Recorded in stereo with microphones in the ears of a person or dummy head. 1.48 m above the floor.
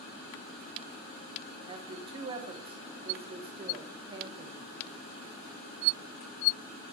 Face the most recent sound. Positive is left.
turn(degrees=-25)  # may be behind; listen again after turning